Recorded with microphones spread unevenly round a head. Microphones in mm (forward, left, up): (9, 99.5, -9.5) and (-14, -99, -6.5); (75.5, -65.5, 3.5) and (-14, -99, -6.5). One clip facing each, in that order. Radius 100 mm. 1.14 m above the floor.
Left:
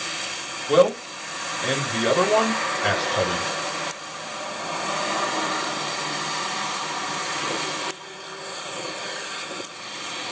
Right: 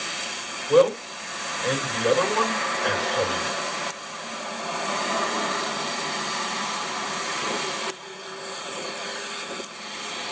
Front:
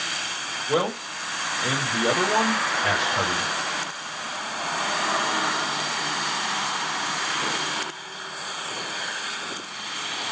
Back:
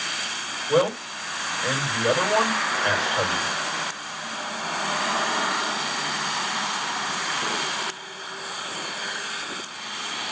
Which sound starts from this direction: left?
A man speaking, at 0.7 s.